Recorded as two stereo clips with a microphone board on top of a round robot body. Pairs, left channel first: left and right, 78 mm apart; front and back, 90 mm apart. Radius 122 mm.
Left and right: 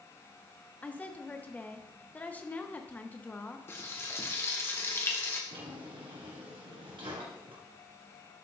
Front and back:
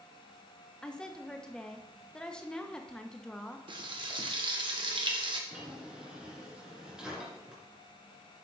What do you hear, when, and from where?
0.8 s a woman speaking: 65° left, 1.0 m
3.7 s frying: 150° left, 1.4 m
5.5 s a drawer: 100° right, 2.5 m